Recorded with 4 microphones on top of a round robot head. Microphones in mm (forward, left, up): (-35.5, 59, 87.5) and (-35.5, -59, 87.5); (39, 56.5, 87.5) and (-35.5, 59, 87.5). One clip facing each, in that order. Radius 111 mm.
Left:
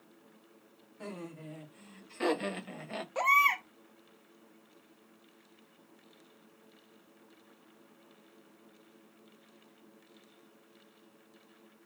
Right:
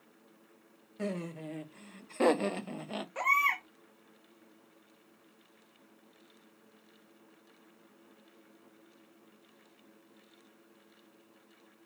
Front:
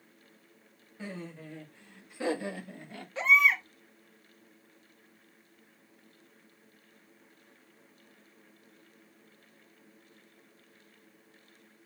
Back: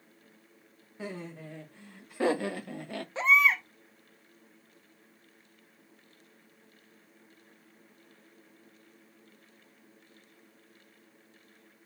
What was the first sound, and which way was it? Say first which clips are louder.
Laughter: right 6 dB, back 2 dB; 105° right.